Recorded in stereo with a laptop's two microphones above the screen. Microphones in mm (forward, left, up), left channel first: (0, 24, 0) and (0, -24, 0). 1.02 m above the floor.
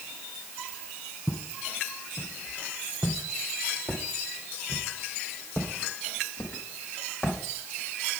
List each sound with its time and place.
1.3 s footsteps: 50° left (ahead or behind), 2.5 m; by 7.4 s 45° left (ahead or behind), 4 m